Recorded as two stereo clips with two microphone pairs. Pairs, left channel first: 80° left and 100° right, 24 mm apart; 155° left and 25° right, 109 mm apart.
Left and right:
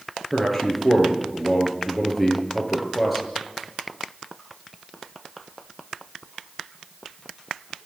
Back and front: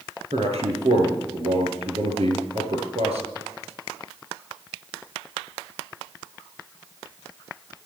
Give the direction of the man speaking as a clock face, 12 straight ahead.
12 o'clock.